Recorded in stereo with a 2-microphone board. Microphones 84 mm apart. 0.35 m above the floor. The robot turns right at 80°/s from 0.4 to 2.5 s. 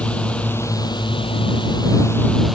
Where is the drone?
15° left; by 2.5 s straight behind.